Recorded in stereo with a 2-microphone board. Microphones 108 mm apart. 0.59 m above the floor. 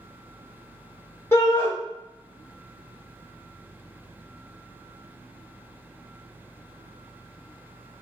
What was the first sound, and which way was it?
A shout, 25° left (ahead or behind).